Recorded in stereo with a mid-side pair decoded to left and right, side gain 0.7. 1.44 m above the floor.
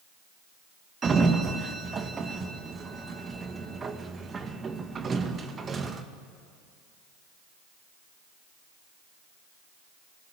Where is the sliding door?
30° right, 2.0 m.